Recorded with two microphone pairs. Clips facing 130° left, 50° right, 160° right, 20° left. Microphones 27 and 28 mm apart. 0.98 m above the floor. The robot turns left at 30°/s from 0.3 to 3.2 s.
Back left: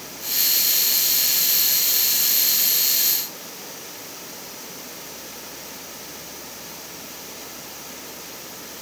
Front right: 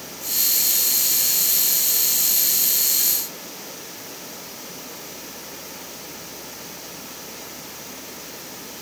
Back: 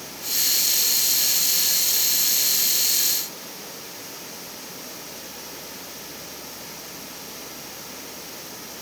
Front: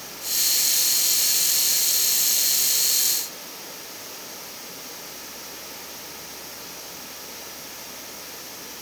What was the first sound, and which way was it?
Only background noise.